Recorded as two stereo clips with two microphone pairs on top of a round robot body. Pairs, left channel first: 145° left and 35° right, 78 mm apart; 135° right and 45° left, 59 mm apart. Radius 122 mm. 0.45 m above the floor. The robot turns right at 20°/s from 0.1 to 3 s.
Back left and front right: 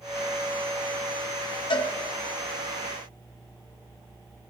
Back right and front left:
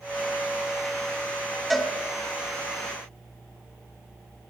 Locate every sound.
1.7 s a cowbell: 135° left, 1.7 m; by 1.9 s 140° left, 1.7 m